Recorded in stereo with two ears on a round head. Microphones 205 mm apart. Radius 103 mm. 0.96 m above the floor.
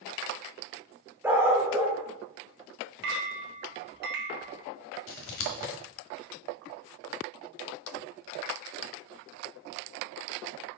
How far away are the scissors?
About 1.3 m.